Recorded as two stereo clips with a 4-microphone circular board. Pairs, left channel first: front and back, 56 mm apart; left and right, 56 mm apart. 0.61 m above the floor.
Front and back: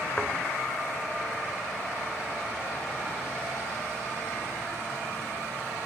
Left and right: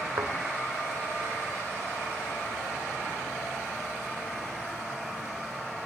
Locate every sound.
0.2 s a thud: 70° right, 2 m